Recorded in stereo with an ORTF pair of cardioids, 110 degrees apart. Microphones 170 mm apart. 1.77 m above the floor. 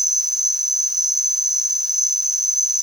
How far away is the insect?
About 1.7 m.